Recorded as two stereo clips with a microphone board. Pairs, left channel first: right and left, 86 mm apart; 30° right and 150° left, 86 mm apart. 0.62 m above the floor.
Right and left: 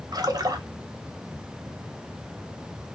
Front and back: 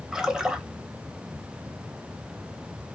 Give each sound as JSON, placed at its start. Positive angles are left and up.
{"t": 0.1, "sound": "a splash", "azimuth_deg": 70, "distance_m": 0.6}